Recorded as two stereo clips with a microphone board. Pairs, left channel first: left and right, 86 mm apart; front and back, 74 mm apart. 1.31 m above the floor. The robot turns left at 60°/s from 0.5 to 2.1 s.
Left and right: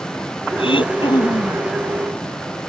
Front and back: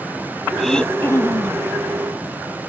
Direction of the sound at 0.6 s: 90° left.